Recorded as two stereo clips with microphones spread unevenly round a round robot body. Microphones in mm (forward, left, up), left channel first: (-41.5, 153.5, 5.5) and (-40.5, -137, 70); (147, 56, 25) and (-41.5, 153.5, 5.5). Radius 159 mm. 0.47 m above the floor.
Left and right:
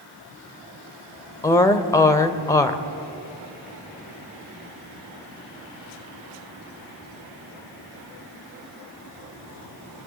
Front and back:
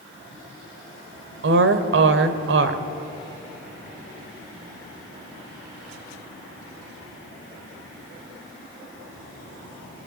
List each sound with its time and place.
1.4 s a woman speaking: 165° left, 1.5 m